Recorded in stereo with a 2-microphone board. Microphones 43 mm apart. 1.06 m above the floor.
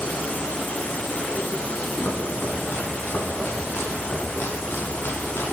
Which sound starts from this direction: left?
Chopping, at 2.0 s.